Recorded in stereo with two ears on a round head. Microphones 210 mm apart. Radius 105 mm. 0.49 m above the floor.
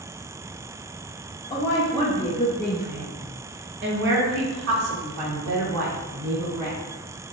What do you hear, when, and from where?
1.5 s a woman speaking: 25° left (ahead or behind), 3 m; by 6.8 s 60° right (ahead or behind), 5 m